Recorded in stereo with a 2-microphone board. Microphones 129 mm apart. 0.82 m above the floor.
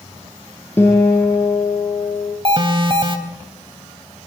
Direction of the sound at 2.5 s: 40° right (ahead or behind).